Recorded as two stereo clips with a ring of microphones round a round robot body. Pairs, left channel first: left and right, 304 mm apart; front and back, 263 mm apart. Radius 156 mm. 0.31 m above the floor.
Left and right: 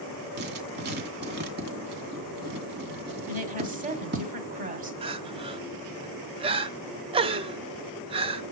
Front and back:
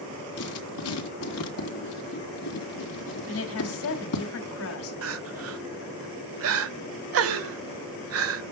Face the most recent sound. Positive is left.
turn(degrees=-160)